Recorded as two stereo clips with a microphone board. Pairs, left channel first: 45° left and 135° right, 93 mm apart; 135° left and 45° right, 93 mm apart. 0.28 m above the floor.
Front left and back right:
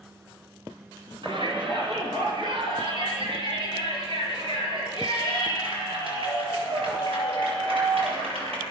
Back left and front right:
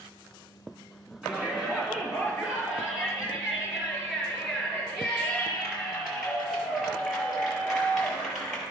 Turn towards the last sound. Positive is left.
turn(degrees=-130)